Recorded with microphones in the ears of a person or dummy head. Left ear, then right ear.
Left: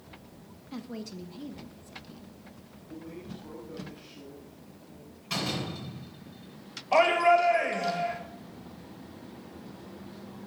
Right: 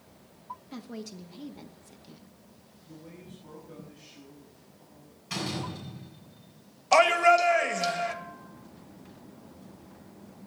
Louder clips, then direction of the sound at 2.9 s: Left 5 dB; 15° left (ahead or behind).